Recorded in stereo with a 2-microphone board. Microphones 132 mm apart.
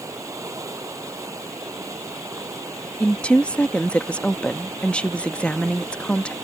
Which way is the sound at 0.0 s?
25° right (ahead or behind).